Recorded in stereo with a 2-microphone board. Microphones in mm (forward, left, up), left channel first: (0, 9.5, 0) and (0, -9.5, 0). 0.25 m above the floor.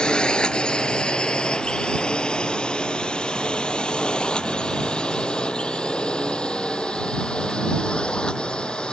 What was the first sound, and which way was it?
A drone, 55° left (ahead or behind).